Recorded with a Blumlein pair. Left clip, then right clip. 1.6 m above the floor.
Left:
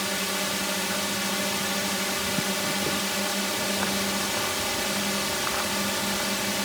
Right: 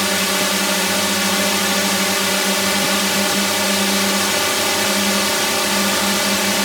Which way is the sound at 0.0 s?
25° right.